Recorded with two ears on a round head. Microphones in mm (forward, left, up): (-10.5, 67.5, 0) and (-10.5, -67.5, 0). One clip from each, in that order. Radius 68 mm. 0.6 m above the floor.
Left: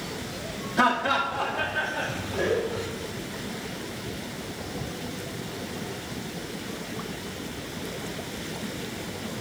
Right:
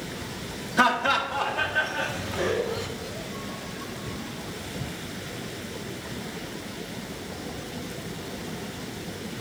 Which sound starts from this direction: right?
Laughter, at 0.8 s.